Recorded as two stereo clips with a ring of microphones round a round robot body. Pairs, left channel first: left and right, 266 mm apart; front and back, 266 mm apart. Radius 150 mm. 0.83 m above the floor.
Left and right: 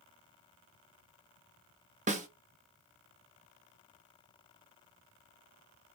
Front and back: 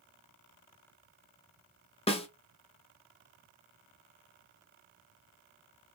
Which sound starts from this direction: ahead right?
A snare drum, at 2.1 s.